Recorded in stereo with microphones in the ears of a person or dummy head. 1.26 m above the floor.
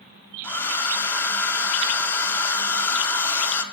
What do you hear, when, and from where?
0.4 s a hair dryer: 5° left (ahead or behind), 0.6 m